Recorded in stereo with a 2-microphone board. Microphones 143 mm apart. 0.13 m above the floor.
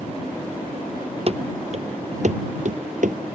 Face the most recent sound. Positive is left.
turn(degrees=-65)  # may be behind; listen again after turning